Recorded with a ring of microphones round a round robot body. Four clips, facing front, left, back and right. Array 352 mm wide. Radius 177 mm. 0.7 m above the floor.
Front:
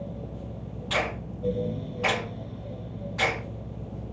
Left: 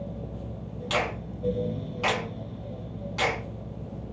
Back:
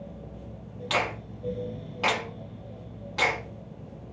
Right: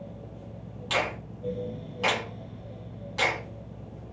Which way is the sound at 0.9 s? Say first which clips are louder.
Left 1 dB, even; 175° left.